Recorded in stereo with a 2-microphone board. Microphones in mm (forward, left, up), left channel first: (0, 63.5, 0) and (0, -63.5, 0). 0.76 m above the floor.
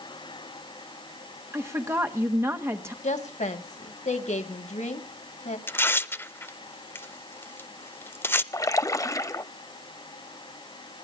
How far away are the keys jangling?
No keys jangling in this recording.